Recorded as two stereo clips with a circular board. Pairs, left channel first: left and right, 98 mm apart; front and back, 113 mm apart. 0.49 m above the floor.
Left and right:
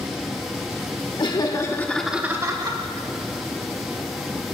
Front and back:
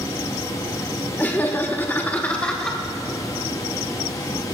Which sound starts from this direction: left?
Laughter, at 1.2 s.